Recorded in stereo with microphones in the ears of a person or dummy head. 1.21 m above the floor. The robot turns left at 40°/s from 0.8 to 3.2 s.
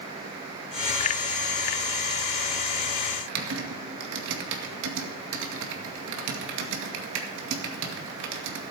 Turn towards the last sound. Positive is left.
turn(degrees=-70)  # may be behind; listen again after turning